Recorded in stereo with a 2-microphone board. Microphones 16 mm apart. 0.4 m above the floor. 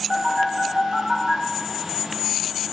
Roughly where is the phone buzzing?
Right.